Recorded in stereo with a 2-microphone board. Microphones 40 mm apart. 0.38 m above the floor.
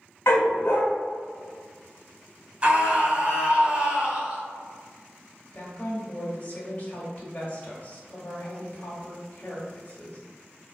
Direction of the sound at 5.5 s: 35° left (ahead or behind).